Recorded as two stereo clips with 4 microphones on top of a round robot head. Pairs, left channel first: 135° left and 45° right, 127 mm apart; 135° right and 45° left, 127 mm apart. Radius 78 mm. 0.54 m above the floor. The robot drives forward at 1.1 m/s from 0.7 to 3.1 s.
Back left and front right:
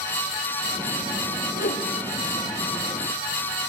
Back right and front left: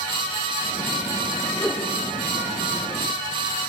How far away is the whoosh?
About 1.5 m.